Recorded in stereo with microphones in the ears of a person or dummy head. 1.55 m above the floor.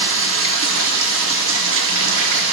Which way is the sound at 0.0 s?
80° right.